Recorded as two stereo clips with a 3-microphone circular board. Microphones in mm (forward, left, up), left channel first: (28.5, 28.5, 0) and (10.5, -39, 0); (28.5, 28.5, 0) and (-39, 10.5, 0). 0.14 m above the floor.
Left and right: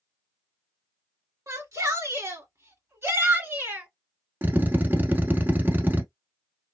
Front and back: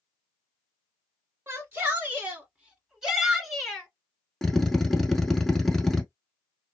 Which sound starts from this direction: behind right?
A shout, at 1.5 s.